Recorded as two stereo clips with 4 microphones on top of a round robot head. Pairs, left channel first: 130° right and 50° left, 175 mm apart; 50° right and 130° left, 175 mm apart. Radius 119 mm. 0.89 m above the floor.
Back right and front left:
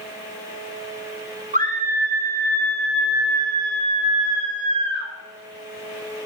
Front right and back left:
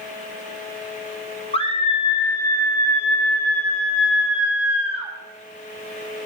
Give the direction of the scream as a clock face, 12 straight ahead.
12 o'clock.